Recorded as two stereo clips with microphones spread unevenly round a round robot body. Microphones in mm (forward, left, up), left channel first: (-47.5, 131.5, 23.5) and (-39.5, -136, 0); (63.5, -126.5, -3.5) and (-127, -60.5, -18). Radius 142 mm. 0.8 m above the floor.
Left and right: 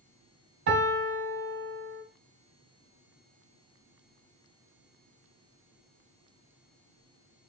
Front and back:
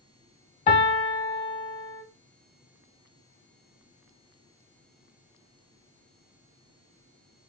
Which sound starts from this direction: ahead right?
A piano, at 0.7 s.